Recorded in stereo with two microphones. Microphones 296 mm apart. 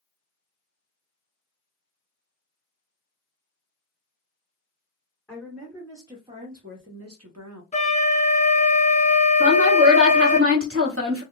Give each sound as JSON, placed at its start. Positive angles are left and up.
{"t": 5.3, "sound": "a woman speaking", "side_deg": 5, "distance_m": 1.2}
{"t": 7.7, "sound": "a flute", "side_deg": 25, "distance_m": 0.7}
{"t": 9.4, "sound": "a woman speaking", "side_deg": -45, "distance_m": 1.1}